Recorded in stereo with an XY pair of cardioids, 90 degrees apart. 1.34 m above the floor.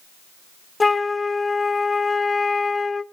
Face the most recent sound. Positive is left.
turn(degrees=25)